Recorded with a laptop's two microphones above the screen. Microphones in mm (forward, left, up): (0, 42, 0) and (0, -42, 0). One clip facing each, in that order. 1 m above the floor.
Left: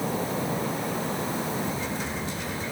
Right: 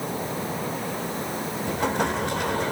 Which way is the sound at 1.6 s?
65° right (ahead or behind).